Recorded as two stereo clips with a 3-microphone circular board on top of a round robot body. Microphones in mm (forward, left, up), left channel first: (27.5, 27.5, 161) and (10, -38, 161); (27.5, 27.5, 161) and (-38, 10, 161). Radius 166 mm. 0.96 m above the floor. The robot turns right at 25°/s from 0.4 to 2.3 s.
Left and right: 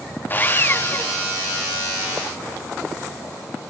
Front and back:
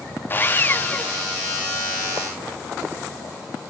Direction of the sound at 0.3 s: 40° left.